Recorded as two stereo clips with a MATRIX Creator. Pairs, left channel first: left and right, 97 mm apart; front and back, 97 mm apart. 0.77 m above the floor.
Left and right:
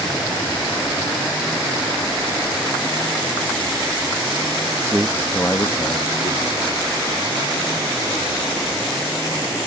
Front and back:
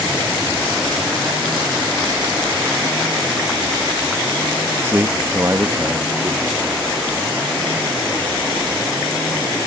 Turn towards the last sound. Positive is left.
turn(degrees=105)